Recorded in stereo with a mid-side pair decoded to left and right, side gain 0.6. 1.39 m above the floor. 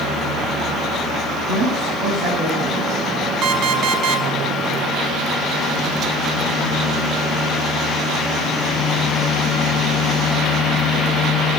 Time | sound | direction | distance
1.5 | a woman speaking | 35° right | 8.5 m
3.4 | an alarm clock | 45° right | 4.5 m